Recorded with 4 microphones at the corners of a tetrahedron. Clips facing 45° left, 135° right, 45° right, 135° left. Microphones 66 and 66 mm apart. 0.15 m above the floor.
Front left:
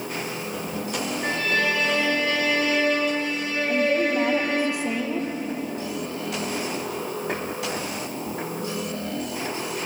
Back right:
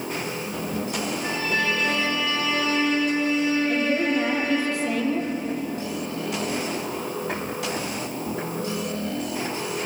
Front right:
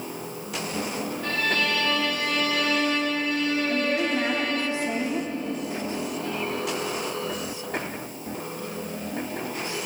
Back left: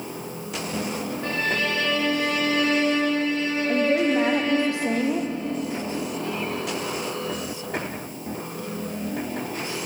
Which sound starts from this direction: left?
A violin, at 1.2 s.